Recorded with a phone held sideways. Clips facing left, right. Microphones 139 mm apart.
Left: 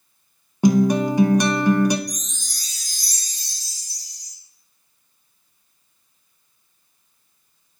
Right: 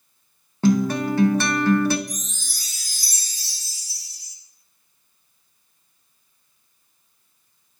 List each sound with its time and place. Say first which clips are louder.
0.6 s a guitar: left 3 dB; 15° left (ahead or behind), 0.6 m
2.1 s a chime: left 1 dB; 5° right (ahead or behind), 1.0 m